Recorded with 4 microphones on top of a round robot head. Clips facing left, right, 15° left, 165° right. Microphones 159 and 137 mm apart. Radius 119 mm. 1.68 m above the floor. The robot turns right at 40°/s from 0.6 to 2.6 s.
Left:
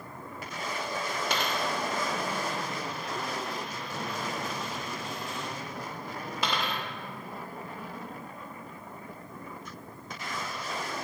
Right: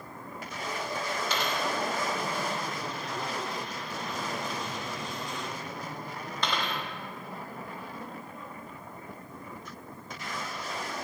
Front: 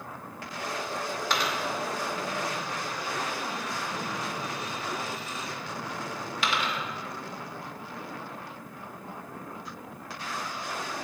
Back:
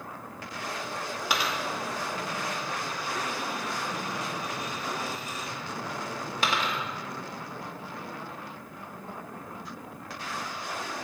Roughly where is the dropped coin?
Behind left.